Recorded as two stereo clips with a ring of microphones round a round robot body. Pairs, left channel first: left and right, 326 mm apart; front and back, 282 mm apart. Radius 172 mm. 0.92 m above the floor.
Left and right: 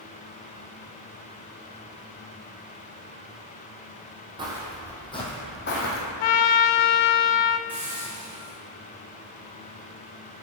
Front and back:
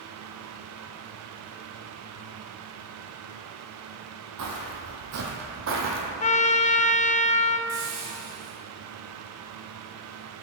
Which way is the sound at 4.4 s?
165° right.